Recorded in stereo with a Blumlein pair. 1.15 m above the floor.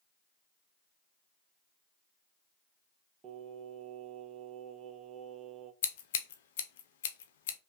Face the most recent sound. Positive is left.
turn(degrees=55)